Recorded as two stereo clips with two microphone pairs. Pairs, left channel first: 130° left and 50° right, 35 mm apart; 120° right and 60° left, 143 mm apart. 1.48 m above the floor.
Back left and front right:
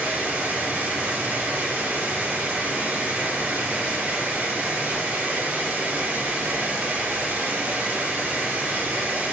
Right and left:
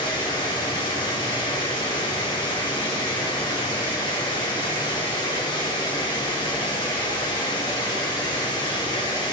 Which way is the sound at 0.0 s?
65° right.